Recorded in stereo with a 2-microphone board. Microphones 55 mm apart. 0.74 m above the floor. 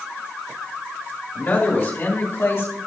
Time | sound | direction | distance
1.4 | a man speaking | 35° left (ahead or behind) | 3.5 m